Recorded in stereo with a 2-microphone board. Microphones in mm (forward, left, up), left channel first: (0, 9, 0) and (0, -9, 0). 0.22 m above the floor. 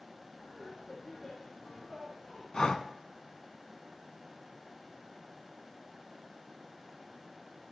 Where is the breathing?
40° left (ahead or behind), 0.6 m.